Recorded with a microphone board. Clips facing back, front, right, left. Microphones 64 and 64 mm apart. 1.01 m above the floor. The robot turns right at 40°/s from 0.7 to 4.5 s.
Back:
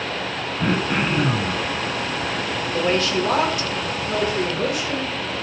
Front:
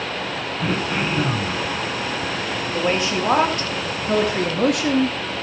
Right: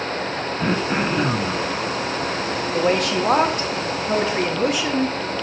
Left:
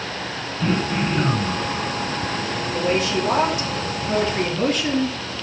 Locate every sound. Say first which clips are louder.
0.6 s throat clearing: back 2 dB, even; 130° right, 1.7 m; by 1.6 s 90° right, 1.7 m
2.7 s a woman speaking: back 1 dB, right 2 dB; 80° right, 1.9 m; by 5.2 s 10° right, 1.9 m